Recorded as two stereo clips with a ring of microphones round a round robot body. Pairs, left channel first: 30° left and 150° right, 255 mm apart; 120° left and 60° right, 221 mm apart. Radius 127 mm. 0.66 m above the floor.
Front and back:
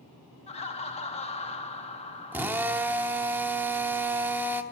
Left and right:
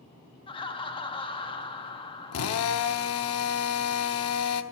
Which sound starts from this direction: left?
Laughter, at 0.5 s.